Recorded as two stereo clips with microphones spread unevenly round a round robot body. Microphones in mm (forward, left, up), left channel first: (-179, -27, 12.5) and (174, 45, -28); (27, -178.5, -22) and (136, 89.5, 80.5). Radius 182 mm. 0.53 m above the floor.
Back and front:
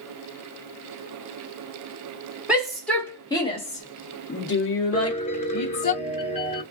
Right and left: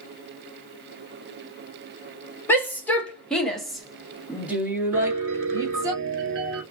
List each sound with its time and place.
2.5 s a shout: 65° right, 1.5 m; by 5.9 s 165° left, 1.7 m
4.9 s a piano: 120° left, 1.3 m